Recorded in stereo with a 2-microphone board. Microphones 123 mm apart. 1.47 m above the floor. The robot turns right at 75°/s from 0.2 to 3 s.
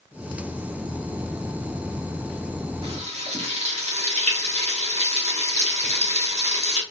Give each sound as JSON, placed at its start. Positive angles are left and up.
{"t": 2.8, "sound": "frying", "side_deg": -50, "distance_m": 0.8}